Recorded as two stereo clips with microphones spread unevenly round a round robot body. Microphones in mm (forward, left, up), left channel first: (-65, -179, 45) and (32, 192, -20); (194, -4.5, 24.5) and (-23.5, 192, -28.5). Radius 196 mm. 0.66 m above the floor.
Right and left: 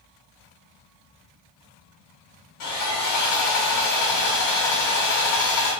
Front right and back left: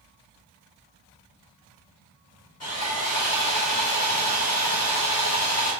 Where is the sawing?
115° right, 3 m.